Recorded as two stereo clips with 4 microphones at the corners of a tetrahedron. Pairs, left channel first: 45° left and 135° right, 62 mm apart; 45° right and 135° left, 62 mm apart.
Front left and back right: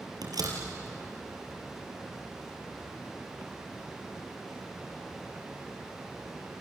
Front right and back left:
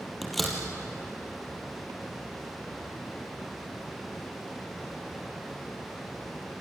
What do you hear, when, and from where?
0.2 s a door slam: 135° right, 4.5 m